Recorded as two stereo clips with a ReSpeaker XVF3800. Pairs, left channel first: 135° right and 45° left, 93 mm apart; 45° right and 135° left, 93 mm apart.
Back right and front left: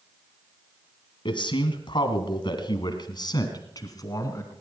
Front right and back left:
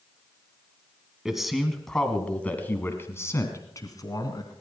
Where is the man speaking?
140° right, 2 m; by 4.5 s 85° right, 2.5 m.